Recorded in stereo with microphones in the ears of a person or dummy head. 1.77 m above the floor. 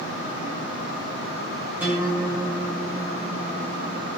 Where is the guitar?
10° right (ahead or behind), 8 m.